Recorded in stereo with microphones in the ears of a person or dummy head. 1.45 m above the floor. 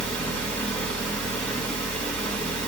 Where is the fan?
5° left (ahead or behind), 2.0 m.